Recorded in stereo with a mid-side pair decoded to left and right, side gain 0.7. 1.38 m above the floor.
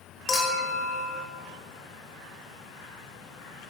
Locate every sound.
0.3 s a clink: 30° left, 0.7 m